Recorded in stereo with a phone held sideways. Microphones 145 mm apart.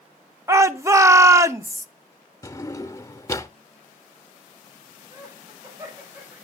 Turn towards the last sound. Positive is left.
turn(degrees=-25)  # may be behind; listen again after turning